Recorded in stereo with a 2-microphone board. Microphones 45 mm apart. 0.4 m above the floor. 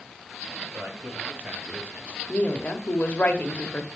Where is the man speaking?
40° right (ahead or behind), 2.5 m.